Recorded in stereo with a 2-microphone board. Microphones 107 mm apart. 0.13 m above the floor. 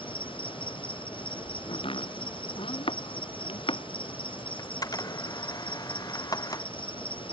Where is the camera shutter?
40° left (ahead or behind).